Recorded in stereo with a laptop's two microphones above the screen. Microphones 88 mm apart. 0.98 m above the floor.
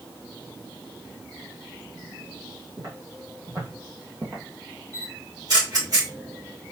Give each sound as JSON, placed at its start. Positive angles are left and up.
{"t": 2.8, "sound": "footsteps", "side_deg": -45, "distance_m": 2.5}
{"t": 4.9, "sound": "a camera shutter", "side_deg": -55, "distance_m": 3.0}